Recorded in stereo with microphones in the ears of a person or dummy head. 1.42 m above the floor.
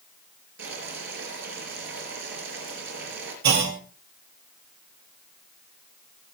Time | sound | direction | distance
0.6 | boiling | 65° right (ahead or behind) | 5 m
3.4 | a clunk | 60° right (ahead or behind) | 2 m